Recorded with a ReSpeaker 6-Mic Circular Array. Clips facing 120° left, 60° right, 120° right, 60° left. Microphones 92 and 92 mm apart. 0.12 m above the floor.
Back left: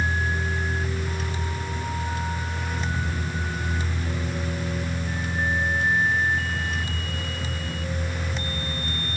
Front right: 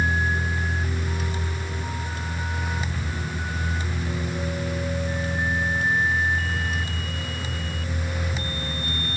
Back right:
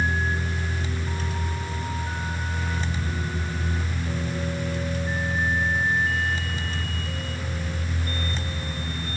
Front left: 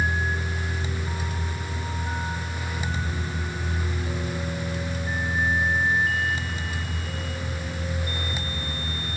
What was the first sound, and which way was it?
Only background noise.